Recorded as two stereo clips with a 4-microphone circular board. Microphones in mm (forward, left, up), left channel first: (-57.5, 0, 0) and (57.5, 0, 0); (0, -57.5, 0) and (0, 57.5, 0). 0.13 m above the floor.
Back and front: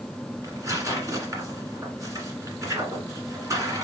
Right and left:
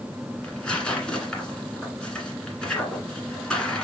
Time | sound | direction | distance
0.4 | tearing paper | 15° right | 1.6 m